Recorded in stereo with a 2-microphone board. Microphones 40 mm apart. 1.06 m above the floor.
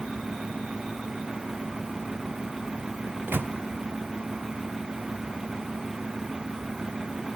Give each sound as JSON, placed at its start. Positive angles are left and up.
{"t": 3.1, "sound": "a microwave", "side_deg": -55, "distance_m": 0.5}